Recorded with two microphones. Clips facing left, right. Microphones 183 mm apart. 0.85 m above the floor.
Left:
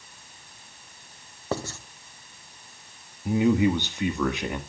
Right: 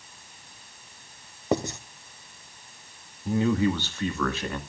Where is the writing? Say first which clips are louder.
Right 5 dB; 20° right (ahead or behind), 0.8 m.